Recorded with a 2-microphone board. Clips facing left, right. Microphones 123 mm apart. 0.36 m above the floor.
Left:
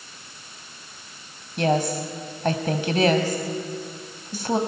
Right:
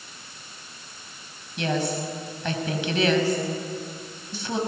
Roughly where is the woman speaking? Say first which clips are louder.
Left 4 dB; left.